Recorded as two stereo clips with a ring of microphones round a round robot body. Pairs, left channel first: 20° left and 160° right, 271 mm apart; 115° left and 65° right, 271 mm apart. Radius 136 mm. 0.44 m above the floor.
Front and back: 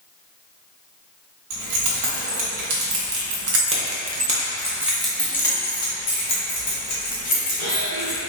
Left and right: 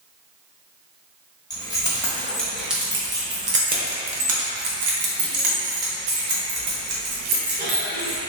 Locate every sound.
1.5 s keys jangling: 170° right, 1.6 m; by 8.2 s 35° right, 2.5 m